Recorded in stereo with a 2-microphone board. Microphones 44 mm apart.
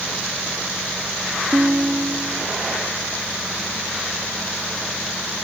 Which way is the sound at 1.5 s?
25° right (ahead or behind).